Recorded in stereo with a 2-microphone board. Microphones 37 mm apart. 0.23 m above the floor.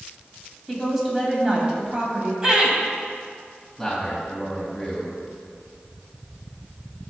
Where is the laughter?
20° right (ahead or behind), 1.1 m.